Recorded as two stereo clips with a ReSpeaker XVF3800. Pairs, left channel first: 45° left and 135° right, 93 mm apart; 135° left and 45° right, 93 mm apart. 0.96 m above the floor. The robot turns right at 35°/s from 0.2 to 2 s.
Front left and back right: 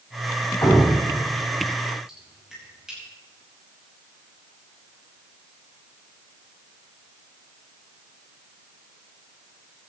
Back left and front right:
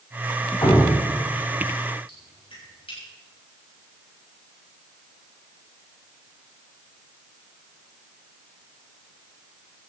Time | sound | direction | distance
0.6 | dripping | 95° left | 6.5 m